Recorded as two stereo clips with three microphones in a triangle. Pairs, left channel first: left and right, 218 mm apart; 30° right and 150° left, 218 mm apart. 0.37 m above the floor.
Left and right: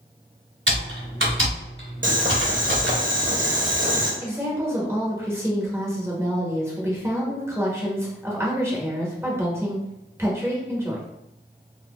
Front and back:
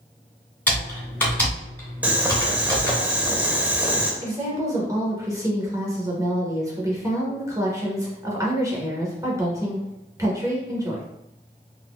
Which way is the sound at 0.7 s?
110° right.